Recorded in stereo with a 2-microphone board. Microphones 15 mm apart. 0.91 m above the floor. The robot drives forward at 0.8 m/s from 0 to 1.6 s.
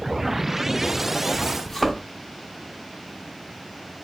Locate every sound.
1.6 s a thud: 10° left (ahead or behind), 1.0 m